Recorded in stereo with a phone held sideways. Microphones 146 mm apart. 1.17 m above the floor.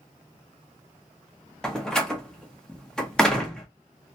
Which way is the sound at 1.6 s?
5° left (ahead or behind).